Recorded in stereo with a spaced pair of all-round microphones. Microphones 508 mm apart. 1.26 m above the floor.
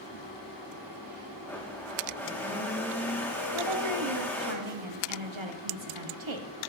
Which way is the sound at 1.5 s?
5° left (ahead or behind).